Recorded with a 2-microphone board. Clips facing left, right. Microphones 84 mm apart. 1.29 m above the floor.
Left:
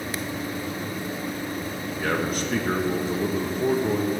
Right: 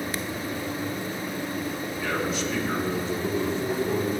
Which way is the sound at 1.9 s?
50° left (ahead or behind).